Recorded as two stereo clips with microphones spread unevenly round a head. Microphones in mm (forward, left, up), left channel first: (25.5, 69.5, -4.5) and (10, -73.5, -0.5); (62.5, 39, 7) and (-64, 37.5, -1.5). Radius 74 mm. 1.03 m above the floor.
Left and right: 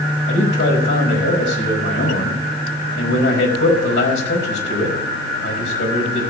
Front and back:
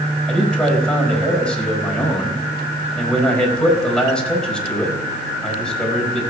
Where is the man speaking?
85° left, 5 m.